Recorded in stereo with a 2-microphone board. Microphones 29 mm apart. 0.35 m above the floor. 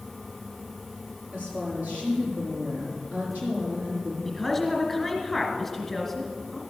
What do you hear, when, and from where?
1.3 s a woman speaking: 60° right (ahead or behind), 6 m
4.2 s a woman speaking: centre (ahead or behind), 2.0 m